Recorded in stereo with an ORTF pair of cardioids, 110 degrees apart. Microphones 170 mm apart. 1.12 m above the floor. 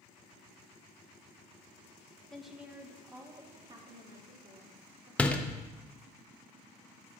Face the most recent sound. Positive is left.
turn(degrees=5)